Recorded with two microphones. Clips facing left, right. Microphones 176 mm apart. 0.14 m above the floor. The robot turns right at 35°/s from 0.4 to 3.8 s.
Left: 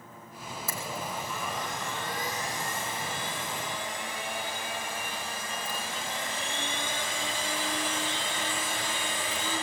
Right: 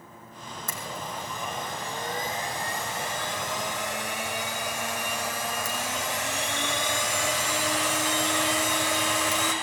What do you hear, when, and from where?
0.7 s a blender: 170° left, 5.5 m; by 9.5 s 80° right, 5.5 m